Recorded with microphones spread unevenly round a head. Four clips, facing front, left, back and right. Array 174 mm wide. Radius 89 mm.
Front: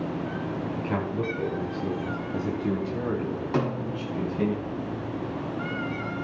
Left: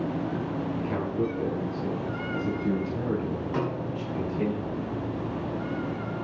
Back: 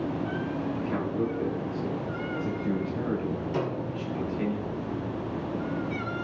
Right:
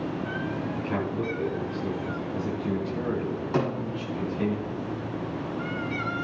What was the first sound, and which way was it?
A man speaking, straight ahead.